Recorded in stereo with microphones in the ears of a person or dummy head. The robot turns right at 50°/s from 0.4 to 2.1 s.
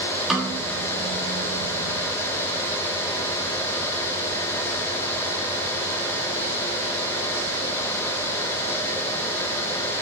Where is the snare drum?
5° left (ahead or behind), 3 m; by 0.7 s 10° right (ahead or behind), 3 m.